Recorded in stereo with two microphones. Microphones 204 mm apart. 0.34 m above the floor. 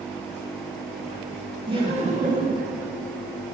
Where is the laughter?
20° right (ahead or behind), 1.1 m; by 2.7 s 45° right (ahead or behind), 1.1 m.